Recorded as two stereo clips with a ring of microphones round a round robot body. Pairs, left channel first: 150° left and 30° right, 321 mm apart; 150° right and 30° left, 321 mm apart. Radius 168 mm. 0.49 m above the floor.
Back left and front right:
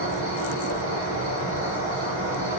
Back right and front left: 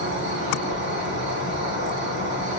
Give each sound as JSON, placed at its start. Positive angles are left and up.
{"t": 0.0, "sound": "an insect", "azimuth_deg": -10, "distance_m": 1.7}